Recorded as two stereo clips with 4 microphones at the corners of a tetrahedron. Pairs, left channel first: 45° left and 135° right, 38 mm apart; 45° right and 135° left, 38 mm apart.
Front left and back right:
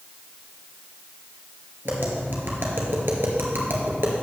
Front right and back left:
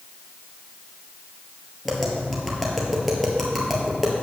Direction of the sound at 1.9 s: 135° right.